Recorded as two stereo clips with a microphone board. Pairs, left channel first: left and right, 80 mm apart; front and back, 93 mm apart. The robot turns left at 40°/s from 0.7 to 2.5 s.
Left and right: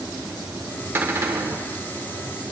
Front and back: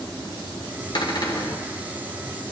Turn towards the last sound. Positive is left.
turn(degrees=-90)